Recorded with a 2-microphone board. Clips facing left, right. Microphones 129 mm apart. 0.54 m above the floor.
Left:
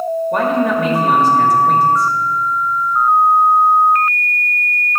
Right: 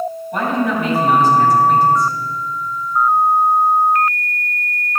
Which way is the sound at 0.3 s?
65° left (ahead or behind).